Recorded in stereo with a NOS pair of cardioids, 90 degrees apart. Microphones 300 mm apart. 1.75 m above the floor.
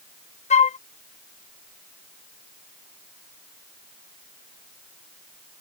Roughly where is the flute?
Ahead left.